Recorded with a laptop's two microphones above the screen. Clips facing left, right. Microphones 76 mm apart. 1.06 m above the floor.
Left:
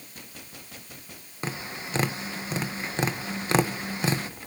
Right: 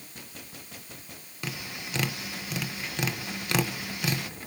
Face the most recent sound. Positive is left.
turn(degrees=30)  # may be behind; listen again after turning